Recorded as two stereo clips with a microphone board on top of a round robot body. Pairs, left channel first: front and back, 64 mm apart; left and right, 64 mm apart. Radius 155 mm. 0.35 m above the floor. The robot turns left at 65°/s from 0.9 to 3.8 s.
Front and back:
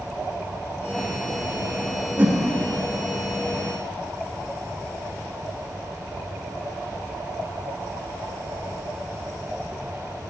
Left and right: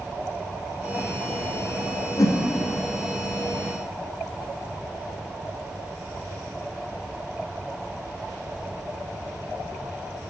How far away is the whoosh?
About 0.7 m.